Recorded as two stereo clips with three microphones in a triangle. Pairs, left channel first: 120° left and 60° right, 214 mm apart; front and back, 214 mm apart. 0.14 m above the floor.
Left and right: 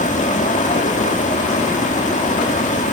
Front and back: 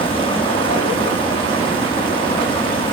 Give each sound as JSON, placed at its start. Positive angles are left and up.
{"t": 0.0, "sound": "running water", "azimuth_deg": 65, "distance_m": 4.0}